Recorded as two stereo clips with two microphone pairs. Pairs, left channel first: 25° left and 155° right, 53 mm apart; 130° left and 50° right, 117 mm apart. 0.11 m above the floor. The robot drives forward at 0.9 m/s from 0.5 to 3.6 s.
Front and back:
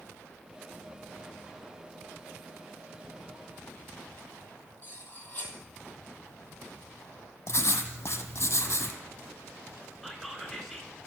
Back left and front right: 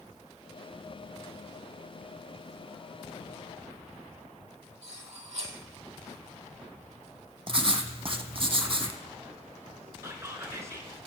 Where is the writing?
10° right, 0.9 m.